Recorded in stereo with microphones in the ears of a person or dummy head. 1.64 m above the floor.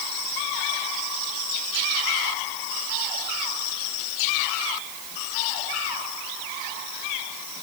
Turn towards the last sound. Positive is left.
No sound to turn to.